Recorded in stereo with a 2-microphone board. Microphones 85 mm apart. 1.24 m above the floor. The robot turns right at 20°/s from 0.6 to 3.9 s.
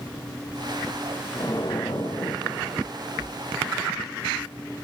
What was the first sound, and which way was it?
An explosion, 60° left.